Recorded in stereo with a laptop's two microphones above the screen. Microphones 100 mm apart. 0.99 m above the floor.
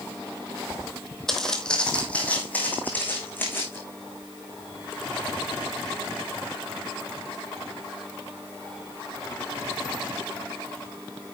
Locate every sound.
1.3 s footsteps: 5° left (ahead or behind), 1.5 m; by 3.8 s 20° left (ahead or behind), 3 m